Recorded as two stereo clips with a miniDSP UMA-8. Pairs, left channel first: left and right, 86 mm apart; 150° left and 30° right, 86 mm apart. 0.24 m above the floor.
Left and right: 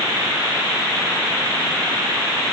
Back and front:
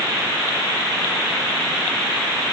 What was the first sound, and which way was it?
Only background noise.